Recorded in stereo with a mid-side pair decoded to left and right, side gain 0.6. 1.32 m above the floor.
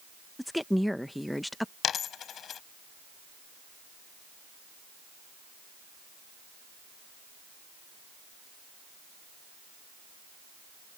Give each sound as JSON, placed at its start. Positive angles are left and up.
{"t": 0.4, "sound": "a woman speaking", "azimuth_deg": 5}
{"t": 1.8, "sound": "a dropped coin", "azimuth_deg": 45}